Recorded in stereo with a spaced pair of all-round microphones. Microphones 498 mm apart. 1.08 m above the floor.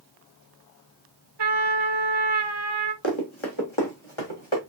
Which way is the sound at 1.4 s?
55° right (ahead or behind).